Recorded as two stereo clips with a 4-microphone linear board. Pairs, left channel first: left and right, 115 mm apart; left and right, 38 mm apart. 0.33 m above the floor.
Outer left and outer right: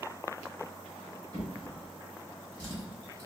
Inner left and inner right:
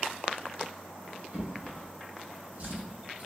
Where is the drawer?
45° right (ahead or behind), 0.9 m.